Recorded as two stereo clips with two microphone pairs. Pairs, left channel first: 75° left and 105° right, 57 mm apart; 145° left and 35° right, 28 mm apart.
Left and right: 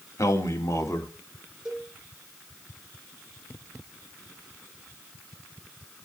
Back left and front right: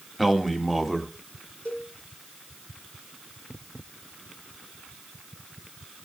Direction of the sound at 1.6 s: Straight behind.